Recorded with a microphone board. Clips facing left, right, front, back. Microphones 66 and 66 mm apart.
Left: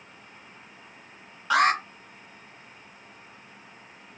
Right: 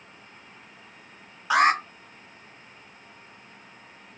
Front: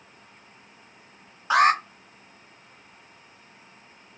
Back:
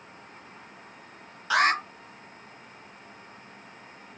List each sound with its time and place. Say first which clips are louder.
1.5 s an alarm: right 1 dB, front 4 dB; 20° right, 1.2 m